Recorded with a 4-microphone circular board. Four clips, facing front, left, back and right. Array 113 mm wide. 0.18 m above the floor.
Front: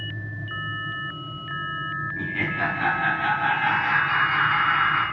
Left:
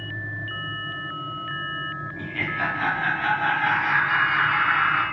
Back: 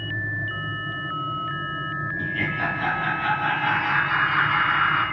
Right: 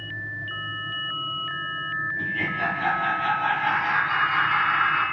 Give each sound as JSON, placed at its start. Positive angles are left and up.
{"t": 2.2, "sound": "laughter", "azimuth_deg": 45, "distance_m": 1.3}